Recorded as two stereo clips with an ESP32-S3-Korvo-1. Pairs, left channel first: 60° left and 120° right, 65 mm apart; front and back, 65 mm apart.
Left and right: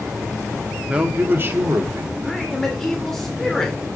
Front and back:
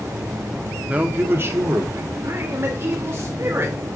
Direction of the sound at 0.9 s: 160° right.